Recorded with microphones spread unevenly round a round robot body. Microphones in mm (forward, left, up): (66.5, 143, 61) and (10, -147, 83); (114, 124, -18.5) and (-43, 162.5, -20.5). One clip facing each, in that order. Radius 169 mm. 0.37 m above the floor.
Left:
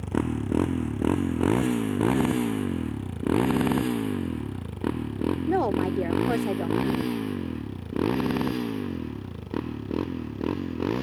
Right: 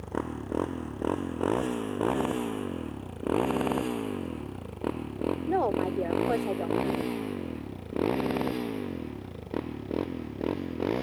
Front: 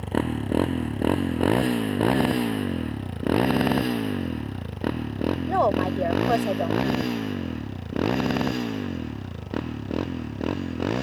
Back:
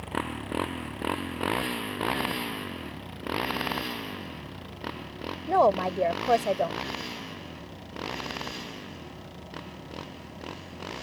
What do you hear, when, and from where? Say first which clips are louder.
0.0 s a motorcycle: left 7 dB, front 8 dB; 35° left; by 11.0 s 10° left
5.5 s a woman speaking: left 3 dB, back 2 dB; 85° left